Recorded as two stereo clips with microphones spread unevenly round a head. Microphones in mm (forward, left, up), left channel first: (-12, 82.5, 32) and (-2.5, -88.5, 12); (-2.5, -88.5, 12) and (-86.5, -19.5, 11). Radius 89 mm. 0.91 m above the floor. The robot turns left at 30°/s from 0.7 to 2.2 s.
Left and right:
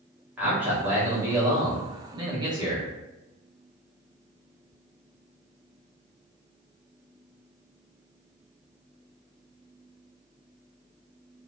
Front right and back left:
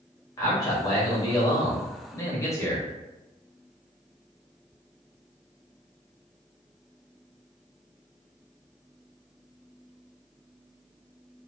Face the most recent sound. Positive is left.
turn(degrees=-75)